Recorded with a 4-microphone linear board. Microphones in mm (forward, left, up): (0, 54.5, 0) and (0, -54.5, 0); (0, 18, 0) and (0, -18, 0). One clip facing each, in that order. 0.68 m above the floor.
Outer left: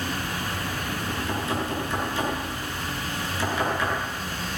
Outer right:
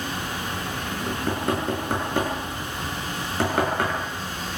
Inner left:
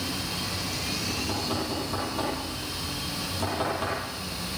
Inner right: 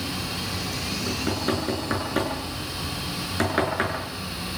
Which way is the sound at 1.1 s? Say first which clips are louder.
Outer right 5 dB, inner right 6 dB; 60° right (ahead or behind).